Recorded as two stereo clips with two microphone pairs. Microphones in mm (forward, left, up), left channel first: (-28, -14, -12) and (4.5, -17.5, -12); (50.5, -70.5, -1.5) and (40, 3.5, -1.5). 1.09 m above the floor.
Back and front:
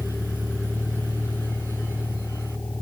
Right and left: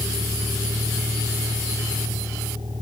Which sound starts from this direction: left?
A vehicle, at 0.0 s.